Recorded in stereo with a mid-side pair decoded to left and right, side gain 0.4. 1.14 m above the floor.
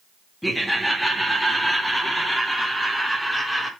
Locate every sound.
0.4 s laughter: 10° left, 2.5 m; by 3.7 s 15° left, 4.5 m